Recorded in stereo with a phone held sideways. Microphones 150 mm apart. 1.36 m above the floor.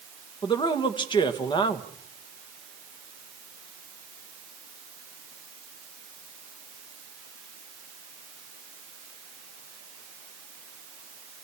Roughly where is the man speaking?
Left.